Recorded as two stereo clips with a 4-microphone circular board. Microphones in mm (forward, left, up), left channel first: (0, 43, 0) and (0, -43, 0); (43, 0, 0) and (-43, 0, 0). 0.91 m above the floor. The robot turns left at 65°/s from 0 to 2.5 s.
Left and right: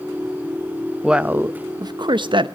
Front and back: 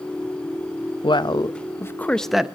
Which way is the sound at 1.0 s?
5° right.